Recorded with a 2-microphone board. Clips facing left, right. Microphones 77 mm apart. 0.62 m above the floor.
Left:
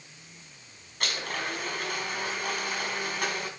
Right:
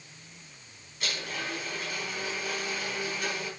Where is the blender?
65° left (ahead or behind), 4.5 m.